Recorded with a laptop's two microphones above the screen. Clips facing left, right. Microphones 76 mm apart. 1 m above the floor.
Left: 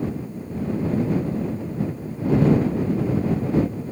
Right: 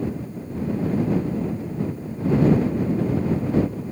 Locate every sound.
Only background noise.